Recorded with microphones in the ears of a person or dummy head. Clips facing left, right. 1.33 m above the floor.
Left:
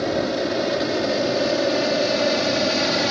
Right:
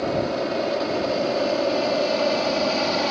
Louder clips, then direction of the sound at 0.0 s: Left 1 dB; 20° left (ahead or behind).